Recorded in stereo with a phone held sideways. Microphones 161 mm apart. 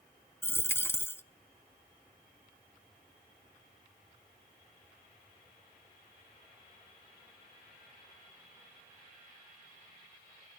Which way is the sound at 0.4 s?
15° left (ahead or behind).